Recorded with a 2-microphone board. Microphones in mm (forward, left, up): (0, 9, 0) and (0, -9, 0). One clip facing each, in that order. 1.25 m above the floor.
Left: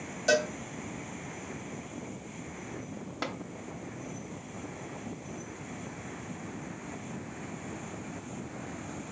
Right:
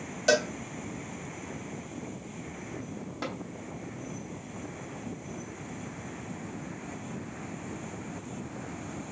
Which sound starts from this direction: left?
Tapping, at 3.2 s.